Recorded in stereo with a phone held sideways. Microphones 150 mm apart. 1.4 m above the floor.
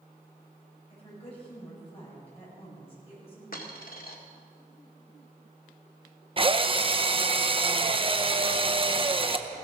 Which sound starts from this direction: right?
A drill, at 6.4 s.